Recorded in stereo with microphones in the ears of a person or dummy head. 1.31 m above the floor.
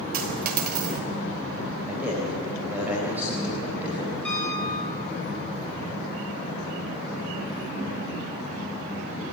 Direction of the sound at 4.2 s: 5° left (ahead or behind).